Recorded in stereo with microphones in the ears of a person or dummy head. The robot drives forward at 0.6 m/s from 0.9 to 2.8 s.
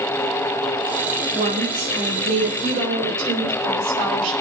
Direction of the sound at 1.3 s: 35° right (ahead or behind).